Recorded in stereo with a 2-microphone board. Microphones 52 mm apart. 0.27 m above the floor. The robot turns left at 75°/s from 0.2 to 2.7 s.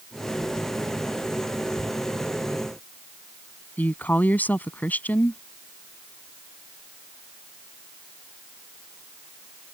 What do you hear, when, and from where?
3.8 s a woman speaking: 30° left (ahead or behind)